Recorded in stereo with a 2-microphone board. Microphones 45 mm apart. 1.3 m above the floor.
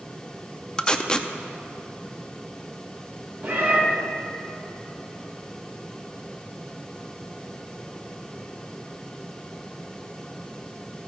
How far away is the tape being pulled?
About 0.5 m.